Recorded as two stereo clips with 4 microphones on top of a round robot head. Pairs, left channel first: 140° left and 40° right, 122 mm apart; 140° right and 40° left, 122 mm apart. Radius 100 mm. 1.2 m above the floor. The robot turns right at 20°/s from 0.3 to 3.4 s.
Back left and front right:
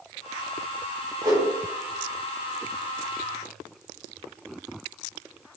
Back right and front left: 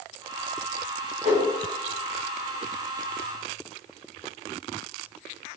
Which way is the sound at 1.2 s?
15° left.